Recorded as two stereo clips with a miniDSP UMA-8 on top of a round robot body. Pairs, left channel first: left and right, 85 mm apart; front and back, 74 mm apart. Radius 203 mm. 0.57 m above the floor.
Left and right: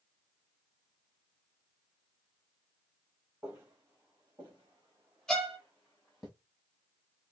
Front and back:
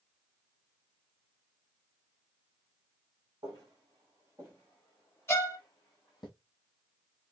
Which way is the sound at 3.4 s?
165° right.